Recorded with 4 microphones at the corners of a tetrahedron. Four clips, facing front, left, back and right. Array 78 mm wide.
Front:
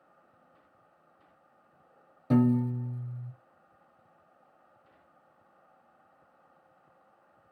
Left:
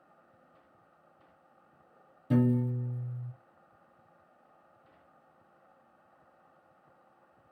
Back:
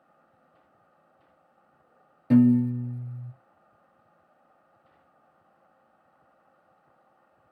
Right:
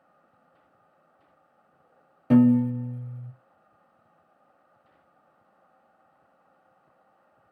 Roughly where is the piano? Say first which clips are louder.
Right 9 dB, back 6 dB; right.